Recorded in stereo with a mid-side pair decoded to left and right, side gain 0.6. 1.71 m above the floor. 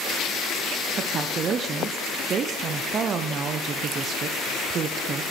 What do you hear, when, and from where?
1.0 s a woman speaking: 40° right, 0.7 m